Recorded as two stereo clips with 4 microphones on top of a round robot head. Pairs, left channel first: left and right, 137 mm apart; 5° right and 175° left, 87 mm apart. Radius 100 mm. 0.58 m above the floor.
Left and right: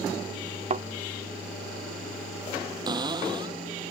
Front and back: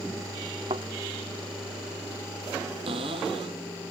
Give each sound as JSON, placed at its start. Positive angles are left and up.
{"t": 0.7, "sound": "a thud", "azimuth_deg": -130}
{"t": 2.9, "sound": "a cupboard door", "azimuth_deg": -150}